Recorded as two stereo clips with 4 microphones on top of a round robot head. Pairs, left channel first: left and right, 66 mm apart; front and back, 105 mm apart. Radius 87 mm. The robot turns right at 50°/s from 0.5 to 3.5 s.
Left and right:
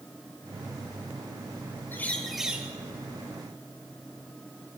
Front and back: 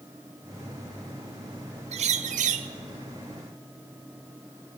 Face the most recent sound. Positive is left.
turn(degrees=-120)